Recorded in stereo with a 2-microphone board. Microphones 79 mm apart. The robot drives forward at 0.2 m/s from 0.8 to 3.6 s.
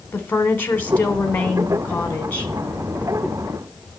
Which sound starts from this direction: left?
A woman speaking, at 0.1 s.